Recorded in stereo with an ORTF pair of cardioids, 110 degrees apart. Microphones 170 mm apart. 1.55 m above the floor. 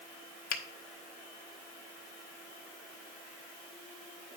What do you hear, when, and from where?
0.5 s a finger snap: 60° left, 1.1 m